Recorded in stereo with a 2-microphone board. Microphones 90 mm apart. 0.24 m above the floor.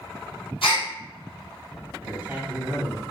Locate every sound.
0.6 s a gasp: 70° left (ahead or behind), 1.6 m
2.0 s a man speaking: 20° right (ahead or behind), 1.0 m